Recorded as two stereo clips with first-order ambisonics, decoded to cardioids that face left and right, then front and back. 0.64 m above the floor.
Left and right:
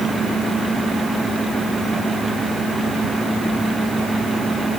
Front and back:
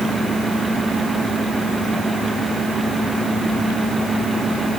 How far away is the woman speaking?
I don't hear a woman speaking.